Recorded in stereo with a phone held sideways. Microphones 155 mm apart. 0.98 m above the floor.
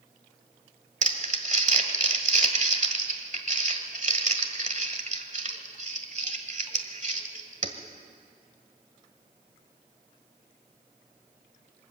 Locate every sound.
1.0 s crumpling: 55° right (ahead or behind), 1.5 m